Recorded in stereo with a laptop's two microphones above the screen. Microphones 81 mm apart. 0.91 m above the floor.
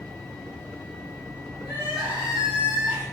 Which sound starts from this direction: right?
Crying, at 1.6 s.